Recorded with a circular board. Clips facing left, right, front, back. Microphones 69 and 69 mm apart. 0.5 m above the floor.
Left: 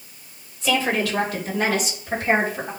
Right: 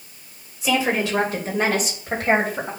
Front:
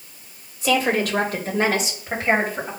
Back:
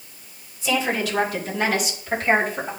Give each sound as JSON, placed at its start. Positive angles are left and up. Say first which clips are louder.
{"t": 0.6, "sound": "a woman speaking", "louder": "right 1 dB, front 3 dB", "azimuth_deg": -10, "distance_m": 2.5}